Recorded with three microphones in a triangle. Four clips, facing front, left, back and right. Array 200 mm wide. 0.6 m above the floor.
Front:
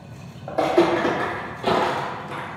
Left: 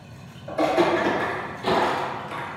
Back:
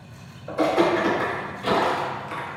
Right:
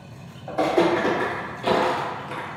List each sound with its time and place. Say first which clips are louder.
0.5 s footsteps: even, front 2 dB; 20° right, 1.8 m; by 2.5 s 30° right, 0.6 m